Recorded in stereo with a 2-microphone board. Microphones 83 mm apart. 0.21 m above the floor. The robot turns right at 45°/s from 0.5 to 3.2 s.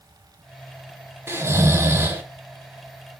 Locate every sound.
1.3 s snoring: 105° right, 1.3 m; by 2.2 s 60° right, 1.3 m